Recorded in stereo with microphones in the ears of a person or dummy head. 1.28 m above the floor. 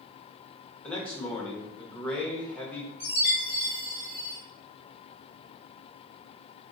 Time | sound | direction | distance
0.8 | a man speaking | 10° left (ahead or behind) | 1.0 m
3.0 | a chime | 10° right (ahead or behind) | 1.7 m